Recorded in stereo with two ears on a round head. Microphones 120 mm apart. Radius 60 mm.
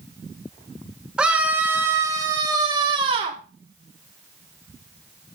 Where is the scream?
5° right (ahead or behind), 2.5 m; by 3.4 s 45° right (ahead or behind), 2.5 m.